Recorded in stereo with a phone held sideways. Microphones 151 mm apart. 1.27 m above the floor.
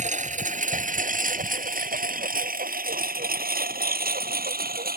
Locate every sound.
0.0 s a lawn mower: 55° right (ahead or behind); by 5.0 s 85° right